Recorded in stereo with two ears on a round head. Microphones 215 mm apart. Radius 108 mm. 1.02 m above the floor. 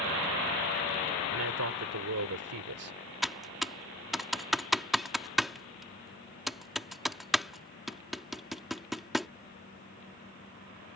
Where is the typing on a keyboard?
Centre (ahead or behind).